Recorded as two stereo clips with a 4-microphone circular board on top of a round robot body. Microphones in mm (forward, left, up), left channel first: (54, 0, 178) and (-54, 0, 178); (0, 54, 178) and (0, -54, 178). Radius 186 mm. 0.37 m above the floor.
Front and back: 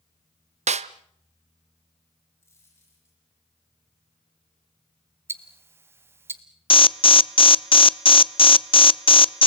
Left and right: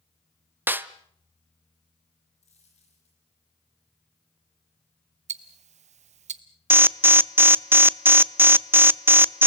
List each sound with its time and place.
0.7 s a snare drum: 165° right, 0.8 m
2.4 s a dropped coin: 70° left, 9.5 m
5.3 s ticking: 110° right, 0.5 m
6.7 s an alarm: 20° right, 0.9 m